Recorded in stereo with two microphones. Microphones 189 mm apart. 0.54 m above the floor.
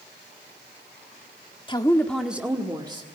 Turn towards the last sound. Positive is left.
turn(degrees=-25)  # may be behind; listen again after turning